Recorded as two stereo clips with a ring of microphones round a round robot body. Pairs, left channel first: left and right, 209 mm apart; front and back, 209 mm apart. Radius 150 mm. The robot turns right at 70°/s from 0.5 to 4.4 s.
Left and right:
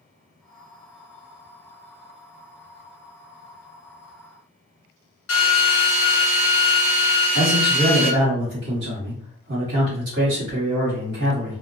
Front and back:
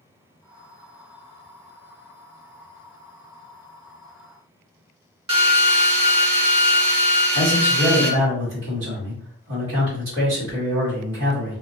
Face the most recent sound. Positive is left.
turn(degrees=-140)